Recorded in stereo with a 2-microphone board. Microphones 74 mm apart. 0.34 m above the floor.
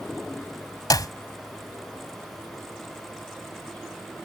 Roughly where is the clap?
Left.